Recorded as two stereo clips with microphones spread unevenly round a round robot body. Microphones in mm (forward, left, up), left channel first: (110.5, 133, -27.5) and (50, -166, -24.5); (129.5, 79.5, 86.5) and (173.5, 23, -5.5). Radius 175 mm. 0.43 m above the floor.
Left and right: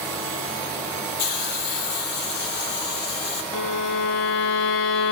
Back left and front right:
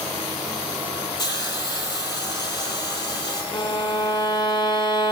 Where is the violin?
135° left, 1.1 m.